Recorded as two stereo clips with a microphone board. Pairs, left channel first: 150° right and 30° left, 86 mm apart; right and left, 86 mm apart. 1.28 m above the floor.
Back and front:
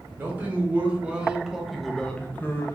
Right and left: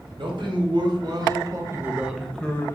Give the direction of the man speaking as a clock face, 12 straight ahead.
9 o'clock.